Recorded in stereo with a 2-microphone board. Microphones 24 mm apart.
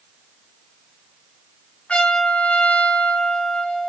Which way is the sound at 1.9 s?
60° left (ahead or behind).